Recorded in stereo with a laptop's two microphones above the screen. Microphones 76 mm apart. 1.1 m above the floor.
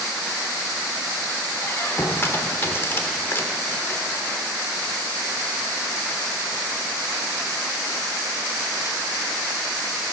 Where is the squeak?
30° left (ahead or behind), 0.8 m.